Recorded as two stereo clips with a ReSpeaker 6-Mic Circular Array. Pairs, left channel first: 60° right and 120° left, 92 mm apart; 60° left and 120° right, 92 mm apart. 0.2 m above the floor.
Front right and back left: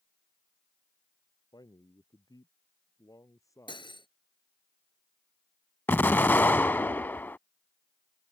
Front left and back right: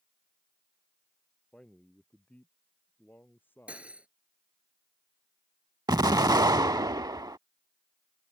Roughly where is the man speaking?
Ahead.